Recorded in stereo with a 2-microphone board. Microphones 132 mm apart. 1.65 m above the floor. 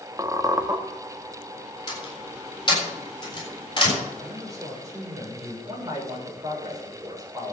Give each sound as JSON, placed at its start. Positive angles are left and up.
{"t": 0.2, "sound": "a squeak", "side_deg": -25, "distance_m": 1.6}
{"t": 1.9, "sound": "a door slam", "side_deg": 35, "distance_m": 7.5}
{"t": 4.2, "sound": "a man speaking", "side_deg": -25, "distance_m": 6.0}
{"t": 5.7, "sound": "a man speaking", "side_deg": -30, "distance_m": 7.0}